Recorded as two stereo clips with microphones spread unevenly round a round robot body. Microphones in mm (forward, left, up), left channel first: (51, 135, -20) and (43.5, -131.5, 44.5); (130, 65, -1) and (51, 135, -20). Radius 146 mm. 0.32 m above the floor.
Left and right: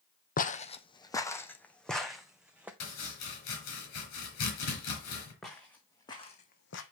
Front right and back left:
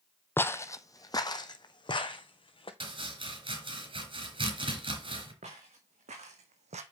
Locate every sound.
0.4 s footsteps: 25° left, 0.9 m; by 2.7 s 10° right, 1.8 m
2.8 s chopping: 110° left, 4.5 m
5.4 s footsteps: straight behind, 1.8 m; by 6.8 s 140° left, 1.0 m